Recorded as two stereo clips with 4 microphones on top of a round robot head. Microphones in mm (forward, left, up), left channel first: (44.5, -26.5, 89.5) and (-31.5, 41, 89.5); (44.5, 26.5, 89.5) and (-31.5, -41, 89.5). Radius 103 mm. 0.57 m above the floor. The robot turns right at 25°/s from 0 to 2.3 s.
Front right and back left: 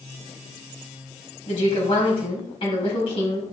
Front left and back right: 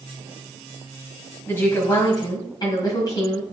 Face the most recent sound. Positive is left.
turn(degrees=-10)